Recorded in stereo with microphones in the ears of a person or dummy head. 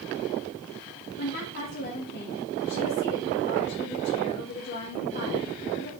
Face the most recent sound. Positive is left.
turn(degrees=50)  # may be behind; listen again after turning